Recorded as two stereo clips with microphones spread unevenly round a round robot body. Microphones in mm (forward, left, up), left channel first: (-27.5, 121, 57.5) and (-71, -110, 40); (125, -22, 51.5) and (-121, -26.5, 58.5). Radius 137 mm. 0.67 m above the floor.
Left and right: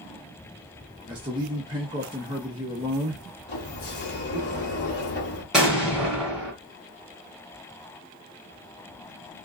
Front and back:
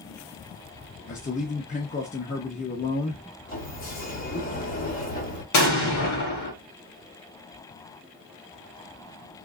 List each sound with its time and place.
1.1 s a man speaking: 45° right, 0.9 m
3.5 s a sliding door: 45° left, 1.6 m
5.5 s an explosion: 10° right, 1.5 m